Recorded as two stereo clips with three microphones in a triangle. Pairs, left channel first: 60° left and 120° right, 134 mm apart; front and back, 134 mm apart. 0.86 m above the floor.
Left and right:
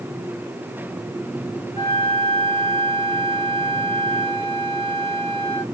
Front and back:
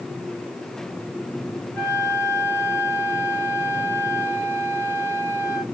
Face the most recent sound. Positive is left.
turn(degrees=-70)